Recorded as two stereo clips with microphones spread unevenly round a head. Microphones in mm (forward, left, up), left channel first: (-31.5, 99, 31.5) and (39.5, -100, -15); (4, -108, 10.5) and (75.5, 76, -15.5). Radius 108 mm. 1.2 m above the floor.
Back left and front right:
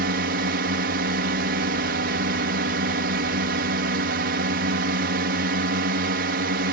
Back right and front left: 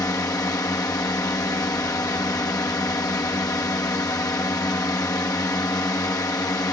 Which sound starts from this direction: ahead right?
A drone, at 0.0 s.